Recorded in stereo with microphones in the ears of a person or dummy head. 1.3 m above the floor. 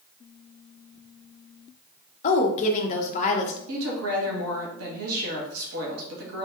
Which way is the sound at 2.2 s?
30° left (ahead or behind).